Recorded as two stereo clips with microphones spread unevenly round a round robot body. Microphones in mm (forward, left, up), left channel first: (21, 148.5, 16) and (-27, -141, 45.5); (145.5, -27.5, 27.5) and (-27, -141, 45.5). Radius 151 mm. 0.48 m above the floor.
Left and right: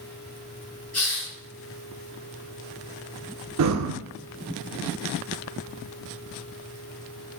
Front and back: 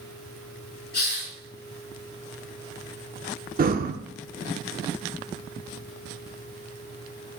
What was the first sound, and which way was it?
A hiss, 5° right.